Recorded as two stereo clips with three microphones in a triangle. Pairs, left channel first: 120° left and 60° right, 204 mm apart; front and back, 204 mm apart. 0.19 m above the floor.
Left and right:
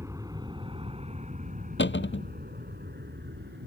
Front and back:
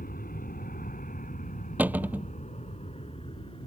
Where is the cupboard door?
100° left.